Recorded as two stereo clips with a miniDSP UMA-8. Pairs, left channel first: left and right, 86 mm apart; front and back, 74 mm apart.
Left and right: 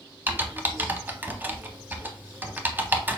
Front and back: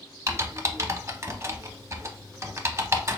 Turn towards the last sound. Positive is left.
turn(degrees=-150)